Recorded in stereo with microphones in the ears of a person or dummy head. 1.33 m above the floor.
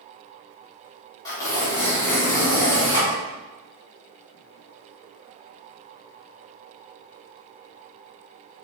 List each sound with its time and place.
1.2 s tearing paper: 15° left (ahead or behind), 1.6 m